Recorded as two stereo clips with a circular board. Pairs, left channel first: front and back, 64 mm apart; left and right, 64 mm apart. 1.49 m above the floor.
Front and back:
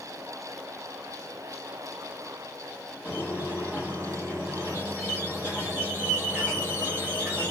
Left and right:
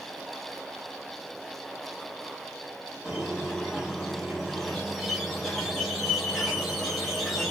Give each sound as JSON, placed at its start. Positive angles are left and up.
{"t": 3.0, "sound": "a squeak", "azimuth_deg": 175, "distance_m": 1.4}